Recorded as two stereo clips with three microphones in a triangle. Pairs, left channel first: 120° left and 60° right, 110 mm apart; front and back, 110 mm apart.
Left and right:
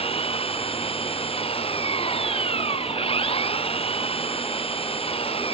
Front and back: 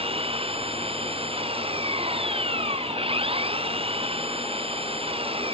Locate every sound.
0.0 s an engine running: 150° left